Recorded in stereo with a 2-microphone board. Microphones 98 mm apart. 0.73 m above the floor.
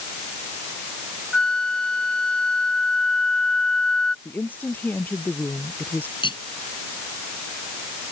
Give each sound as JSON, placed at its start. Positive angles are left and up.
{"t": 1.3, "sound": "a flute", "side_deg": 10}
{"t": 4.2, "sound": "a woman speaking", "side_deg": 20}
{"t": 6.2, "sound": "cutlery clinking", "side_deg": 55}